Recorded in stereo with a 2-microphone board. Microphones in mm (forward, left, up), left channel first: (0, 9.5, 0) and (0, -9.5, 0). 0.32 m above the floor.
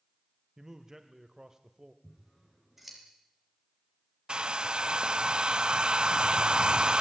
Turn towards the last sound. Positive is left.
turn(degrees=-50)  # may be behind; listen again after turning